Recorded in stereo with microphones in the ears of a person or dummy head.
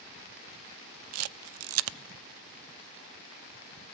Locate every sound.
1.1 s a camera shutter: 85° right, 0.6 m